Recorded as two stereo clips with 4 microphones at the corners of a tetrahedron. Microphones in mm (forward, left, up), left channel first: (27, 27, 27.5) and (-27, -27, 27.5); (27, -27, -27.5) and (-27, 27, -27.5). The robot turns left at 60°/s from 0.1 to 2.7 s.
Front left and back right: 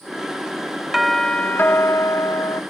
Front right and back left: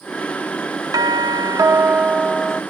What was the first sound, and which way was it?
A doorbell, 140° left.